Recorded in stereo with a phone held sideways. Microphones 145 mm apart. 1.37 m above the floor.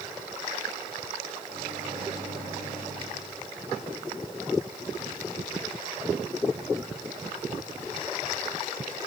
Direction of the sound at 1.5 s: 80° right.